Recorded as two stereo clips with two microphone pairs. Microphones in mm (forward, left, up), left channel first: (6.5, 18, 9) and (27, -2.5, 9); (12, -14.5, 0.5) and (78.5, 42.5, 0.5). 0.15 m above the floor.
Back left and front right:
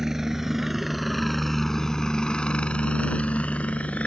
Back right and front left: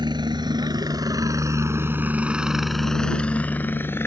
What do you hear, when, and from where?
0.0 s a helicopter: 30° left; by 4.1 s 160° left